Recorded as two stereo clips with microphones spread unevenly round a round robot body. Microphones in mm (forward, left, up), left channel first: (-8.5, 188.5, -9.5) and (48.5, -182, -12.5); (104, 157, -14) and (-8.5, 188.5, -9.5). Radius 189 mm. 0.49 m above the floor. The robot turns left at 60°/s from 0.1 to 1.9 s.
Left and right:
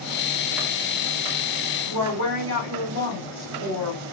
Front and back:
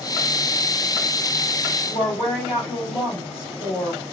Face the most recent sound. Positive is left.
turn(degrees=-130)